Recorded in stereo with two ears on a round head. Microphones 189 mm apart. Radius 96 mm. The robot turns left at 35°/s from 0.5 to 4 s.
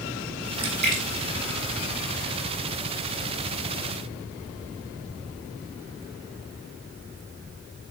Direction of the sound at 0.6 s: 20° right (ahead or behind).